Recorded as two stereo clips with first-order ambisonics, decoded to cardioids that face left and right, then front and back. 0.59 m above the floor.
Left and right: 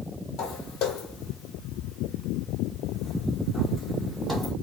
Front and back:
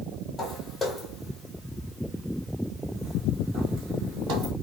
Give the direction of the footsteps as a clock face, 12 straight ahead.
10 o'clock.